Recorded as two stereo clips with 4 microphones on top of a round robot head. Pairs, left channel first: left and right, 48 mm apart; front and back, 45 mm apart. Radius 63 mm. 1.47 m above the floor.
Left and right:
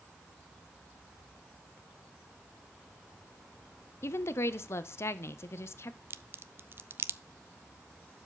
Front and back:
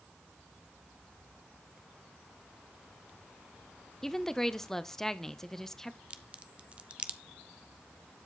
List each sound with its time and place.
4.0 s a woman speaking: 75° left, 0.6 m
6.1 s a crack: 125° right, 0.6 m